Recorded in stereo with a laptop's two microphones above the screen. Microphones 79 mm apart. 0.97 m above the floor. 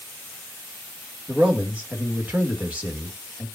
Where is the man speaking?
20° right (ahead or behind), 1.5 m.